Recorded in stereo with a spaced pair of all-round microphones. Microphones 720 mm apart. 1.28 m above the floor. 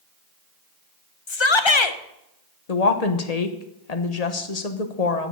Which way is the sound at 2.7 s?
60° left (ahead or behind).